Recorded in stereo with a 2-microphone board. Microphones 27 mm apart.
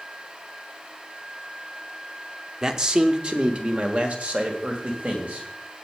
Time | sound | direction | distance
2.6 | a man speaking | 25° right (ahead or behind) | 0.9 m